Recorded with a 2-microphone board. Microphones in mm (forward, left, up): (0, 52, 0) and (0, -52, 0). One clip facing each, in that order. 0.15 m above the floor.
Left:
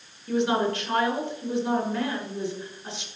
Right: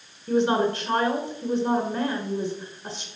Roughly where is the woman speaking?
Right.